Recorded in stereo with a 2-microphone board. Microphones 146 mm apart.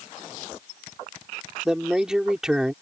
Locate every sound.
1.6 s a man speaking: 5° right (ahead or behind)